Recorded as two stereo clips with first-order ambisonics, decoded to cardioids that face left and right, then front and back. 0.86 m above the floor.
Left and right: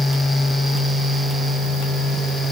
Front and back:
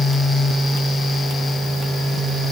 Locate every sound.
Only background noise.